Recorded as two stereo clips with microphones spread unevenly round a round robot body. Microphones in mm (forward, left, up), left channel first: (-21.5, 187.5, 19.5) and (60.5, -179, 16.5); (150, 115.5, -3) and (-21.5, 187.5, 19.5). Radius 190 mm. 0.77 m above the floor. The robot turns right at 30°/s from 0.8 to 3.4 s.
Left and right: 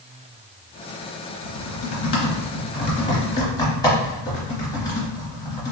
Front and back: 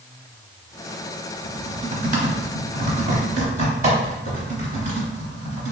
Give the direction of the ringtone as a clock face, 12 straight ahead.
I don't hear a ringtone.